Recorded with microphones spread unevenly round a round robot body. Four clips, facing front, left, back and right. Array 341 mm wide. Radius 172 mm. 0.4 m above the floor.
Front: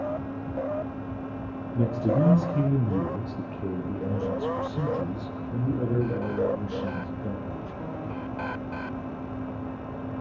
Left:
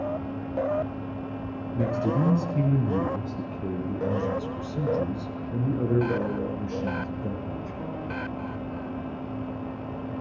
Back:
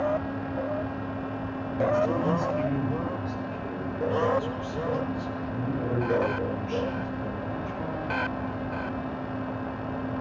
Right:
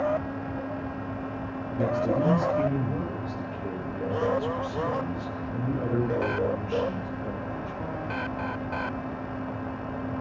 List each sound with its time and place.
1.8 s a man speaking: 35° left, 4 m; by 7.8 s 65° left, 6.5 m